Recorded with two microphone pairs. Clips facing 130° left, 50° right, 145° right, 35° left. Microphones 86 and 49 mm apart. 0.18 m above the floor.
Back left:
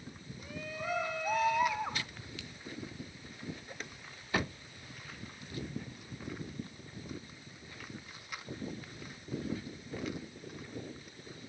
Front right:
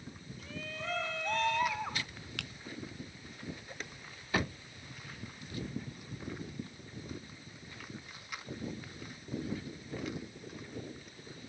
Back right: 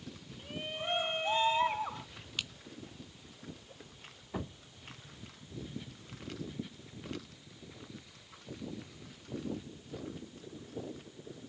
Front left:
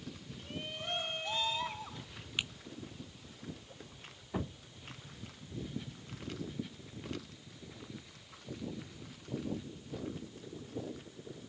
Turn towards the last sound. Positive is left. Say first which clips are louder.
# front right 3 dB, front left 3 dB
turn(degrees=-35)